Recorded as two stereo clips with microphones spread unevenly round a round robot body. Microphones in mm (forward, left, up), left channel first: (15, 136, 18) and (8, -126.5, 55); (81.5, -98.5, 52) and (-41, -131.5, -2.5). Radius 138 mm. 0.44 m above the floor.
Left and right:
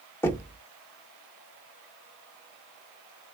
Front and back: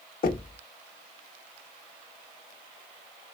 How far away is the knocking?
About 0.9 m.